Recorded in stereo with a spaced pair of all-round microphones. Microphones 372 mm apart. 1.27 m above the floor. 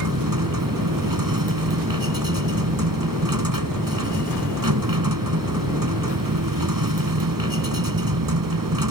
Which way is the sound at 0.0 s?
60° right (ahead or behind).